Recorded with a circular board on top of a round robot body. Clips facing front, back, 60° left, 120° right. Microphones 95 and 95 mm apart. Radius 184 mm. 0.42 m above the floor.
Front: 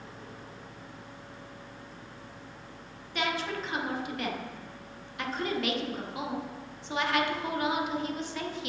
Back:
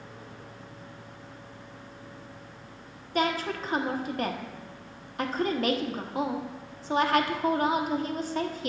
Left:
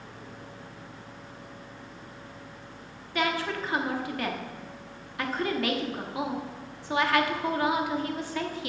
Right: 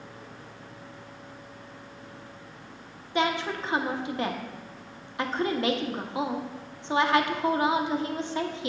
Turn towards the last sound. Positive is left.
turn(degrees=-175)